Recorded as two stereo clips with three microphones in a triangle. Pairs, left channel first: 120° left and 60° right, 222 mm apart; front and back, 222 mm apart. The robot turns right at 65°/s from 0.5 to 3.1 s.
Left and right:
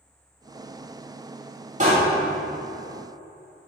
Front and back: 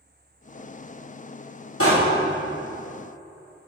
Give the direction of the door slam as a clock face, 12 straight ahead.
12 o'clock.